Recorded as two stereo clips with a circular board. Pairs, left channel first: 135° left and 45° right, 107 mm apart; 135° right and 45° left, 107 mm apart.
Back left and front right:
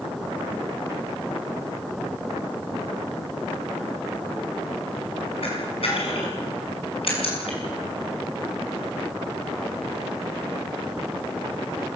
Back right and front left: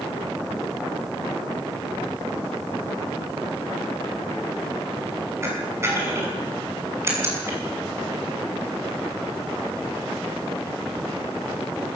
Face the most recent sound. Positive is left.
turn(degrees=110)